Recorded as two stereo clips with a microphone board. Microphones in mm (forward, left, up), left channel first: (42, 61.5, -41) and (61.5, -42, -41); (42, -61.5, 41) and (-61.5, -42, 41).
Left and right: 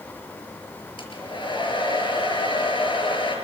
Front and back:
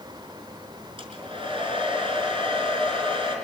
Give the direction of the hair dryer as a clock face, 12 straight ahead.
7 o'clock.